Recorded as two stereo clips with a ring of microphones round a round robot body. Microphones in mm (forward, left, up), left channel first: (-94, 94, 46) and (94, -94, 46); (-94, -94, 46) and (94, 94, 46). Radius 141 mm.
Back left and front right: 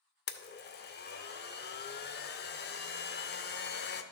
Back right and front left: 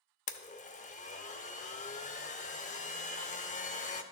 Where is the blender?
170° left, 0.7 m.